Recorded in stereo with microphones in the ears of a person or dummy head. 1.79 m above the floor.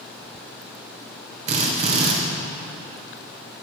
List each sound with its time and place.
1.5 s a drill: 40° right (ahead or behind), 1.7 m